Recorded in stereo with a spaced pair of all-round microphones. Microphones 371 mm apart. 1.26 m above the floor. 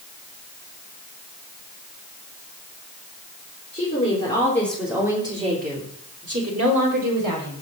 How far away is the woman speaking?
About 3.5 m.